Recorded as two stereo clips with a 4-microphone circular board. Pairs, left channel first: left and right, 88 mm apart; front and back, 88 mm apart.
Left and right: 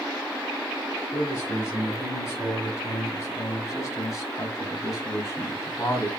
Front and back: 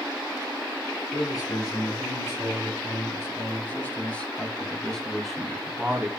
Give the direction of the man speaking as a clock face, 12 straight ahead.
11 o'clock.